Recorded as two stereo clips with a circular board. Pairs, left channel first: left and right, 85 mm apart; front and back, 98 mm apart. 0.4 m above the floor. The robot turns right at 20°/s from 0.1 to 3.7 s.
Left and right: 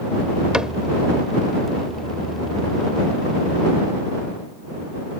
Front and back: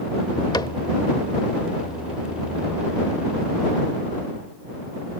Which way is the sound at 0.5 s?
15° right.